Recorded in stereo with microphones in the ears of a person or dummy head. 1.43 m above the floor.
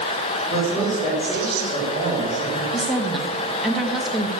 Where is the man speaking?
15° right (ahead or behind), 5.5 m; by 2.6 s 25° right (ahead or behind), 4 m.